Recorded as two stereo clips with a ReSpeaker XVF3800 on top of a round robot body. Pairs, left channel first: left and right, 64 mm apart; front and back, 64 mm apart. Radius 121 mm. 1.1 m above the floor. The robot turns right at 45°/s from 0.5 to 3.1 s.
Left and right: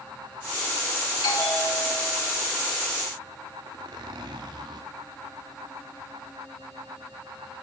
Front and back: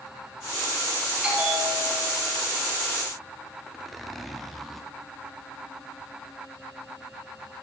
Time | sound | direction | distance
1.2 | a bell | 105° left | 5.5 m
3.7 | a zipper | 90° right | 0.9 m